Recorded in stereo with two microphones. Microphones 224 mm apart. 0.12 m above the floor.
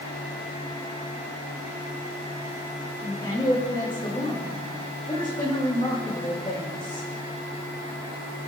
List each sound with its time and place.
3.0 s a woman speaking: 20° left (ahead or behind), 6.5 m